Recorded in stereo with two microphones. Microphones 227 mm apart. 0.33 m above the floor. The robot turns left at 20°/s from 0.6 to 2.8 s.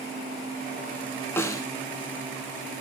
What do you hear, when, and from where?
1.4 s a snare drum: 10° left (ahead or behind), 0.6 m; by 1.6 s 15° left (ahead or behind), 0.6 m